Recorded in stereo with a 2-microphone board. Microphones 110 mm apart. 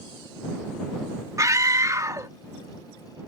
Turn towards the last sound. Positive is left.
turn(degrees=-35)  # may be behind; listen again after turning